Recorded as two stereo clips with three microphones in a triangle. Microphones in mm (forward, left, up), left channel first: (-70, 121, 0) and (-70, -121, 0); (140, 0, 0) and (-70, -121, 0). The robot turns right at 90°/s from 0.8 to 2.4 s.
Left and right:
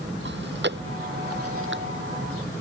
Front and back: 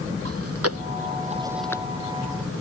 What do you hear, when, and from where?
0.2 s chewing: 135° right; by 2.6 s 10° left